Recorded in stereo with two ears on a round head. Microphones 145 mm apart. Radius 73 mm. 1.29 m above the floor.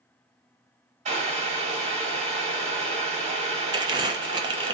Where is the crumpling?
25° right (ahead or behind), 0.7 m.